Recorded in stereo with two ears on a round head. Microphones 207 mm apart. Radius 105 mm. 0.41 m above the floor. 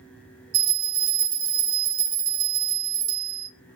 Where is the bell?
35° right (ahead or behind), 1.1 m.